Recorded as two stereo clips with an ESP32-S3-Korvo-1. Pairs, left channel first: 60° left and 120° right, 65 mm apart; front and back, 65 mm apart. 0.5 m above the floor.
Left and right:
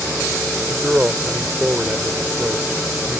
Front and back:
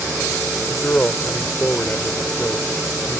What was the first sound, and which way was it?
A man speaking, 55° right.